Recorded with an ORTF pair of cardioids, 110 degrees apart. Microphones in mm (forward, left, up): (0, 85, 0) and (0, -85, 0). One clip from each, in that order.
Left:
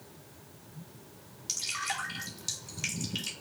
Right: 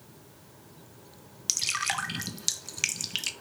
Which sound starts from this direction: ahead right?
Dripping, at 1.5 s.